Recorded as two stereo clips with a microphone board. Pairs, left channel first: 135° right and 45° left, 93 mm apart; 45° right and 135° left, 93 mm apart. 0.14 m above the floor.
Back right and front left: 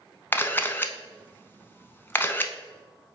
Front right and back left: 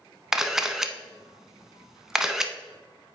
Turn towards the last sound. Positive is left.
turn(degrees=-150)